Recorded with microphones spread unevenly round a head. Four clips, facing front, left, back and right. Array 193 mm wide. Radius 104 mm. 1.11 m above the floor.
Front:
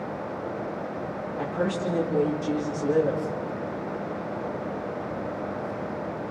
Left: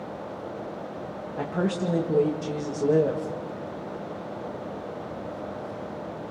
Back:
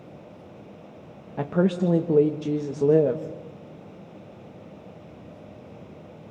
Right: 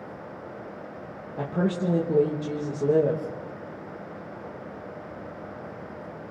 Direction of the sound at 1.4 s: Straight behind.